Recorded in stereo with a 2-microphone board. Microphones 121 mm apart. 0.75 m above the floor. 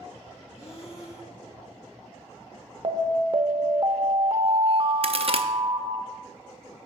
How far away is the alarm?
About 0.6 m.